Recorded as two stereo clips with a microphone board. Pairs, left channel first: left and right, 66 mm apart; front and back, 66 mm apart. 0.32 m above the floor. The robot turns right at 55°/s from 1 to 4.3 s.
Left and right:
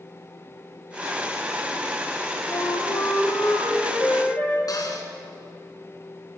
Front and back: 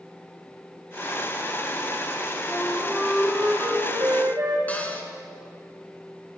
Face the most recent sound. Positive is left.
turn(degrees=65)